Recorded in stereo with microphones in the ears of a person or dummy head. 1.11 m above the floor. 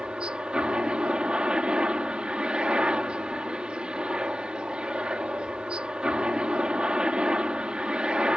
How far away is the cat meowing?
I don't hear a cat meowing.